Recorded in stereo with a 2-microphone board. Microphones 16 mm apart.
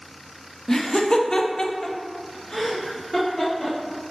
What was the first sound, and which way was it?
Laughter, 30° left (ahead or behind).